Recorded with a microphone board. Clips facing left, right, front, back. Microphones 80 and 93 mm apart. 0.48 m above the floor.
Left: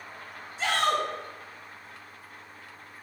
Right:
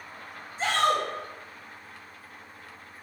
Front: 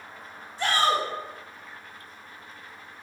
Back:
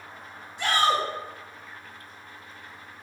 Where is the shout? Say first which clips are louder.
Right 1 dB, even; 45° right, 2.5 m.